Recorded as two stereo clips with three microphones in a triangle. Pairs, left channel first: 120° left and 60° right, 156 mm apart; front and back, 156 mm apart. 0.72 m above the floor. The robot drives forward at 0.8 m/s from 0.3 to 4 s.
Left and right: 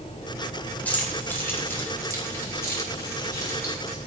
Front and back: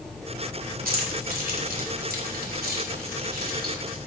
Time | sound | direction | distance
0.8 | keys jangling | 160° right | 2 m